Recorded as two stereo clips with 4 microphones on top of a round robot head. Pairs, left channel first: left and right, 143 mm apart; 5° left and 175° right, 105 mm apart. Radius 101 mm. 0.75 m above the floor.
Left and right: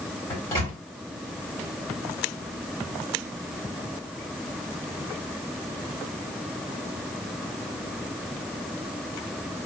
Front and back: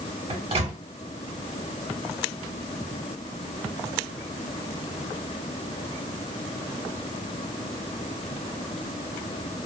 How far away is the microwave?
About 1.5 m.